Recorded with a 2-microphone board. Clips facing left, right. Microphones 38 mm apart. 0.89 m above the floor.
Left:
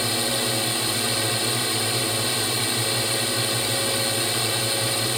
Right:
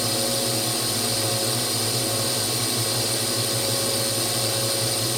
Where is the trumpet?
No trumpet in this recording.